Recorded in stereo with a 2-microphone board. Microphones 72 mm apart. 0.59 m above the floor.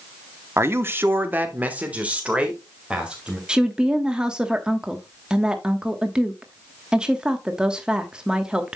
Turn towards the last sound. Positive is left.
turn(degrees=-10)  # may be behind; listen again after turning